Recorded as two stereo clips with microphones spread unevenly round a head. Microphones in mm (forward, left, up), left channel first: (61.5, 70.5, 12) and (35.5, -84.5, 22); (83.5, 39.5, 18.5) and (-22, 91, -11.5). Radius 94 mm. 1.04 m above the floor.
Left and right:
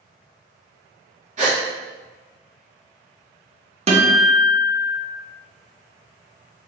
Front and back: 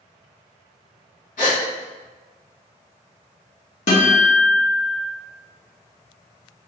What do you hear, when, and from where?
1.4 s a gasp: 65° right, 1.6 m
3.9 s a guitar: 60° right, 0.9 m